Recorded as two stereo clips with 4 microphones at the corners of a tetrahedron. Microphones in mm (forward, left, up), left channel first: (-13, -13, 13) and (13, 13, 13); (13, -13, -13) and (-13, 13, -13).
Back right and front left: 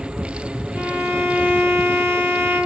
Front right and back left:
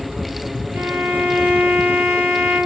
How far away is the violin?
About 1.9 m.